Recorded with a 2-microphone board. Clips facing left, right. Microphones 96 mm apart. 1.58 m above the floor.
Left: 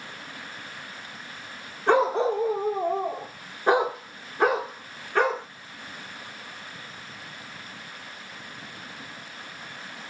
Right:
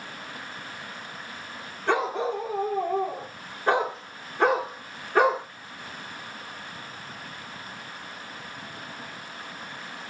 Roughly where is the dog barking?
Left.